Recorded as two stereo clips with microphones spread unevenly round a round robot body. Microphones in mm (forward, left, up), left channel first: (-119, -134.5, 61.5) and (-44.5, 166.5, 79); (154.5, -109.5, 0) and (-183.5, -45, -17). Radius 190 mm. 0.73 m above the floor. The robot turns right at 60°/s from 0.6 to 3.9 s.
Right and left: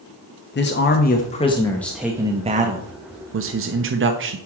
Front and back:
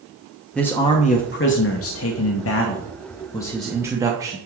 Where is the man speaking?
100° right, 0.9 m; by 4.4 s 100° left, 0.9 m.